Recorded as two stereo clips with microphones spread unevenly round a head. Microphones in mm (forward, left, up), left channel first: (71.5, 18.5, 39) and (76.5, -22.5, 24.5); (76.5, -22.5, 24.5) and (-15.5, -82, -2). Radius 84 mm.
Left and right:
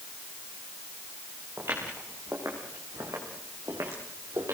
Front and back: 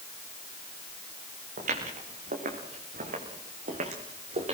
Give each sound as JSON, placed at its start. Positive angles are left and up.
{"t": 1.6, "sound": "footsteps", "azimuth_deg": -155, "distance_m": 6.0}